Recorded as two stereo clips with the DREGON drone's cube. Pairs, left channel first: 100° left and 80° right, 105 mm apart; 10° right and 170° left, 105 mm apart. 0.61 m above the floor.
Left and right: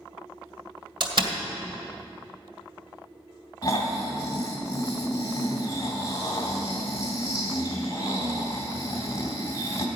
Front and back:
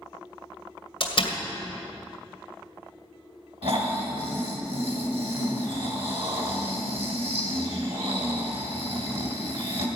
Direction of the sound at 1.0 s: 45° right.